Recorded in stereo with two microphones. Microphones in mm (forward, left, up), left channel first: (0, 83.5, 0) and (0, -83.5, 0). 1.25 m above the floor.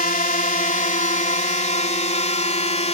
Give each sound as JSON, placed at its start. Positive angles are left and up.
{"t": 0.0, "sound": "a drone", "side_deg": 55}